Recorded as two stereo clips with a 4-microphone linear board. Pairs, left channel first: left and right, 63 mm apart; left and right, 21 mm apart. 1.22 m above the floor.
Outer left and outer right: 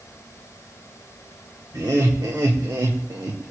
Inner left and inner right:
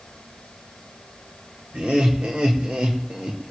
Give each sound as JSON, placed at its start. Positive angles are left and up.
{"t": 1.7, "sound": "laughter", "side_deg": -75, "distance_m": 2.0}